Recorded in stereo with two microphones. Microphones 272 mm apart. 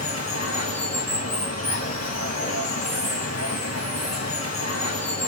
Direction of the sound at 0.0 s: 70° left (ahead or behind).